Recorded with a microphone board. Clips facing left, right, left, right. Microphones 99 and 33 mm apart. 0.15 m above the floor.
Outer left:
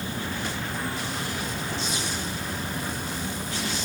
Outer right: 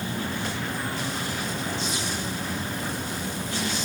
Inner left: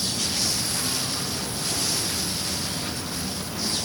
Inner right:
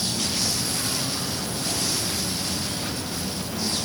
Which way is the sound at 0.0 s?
55° right (ahead or behind).